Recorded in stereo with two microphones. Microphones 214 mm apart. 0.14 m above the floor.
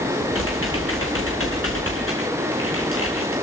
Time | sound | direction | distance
0.3 | typing on a keyboard | 85° left | 4.5 m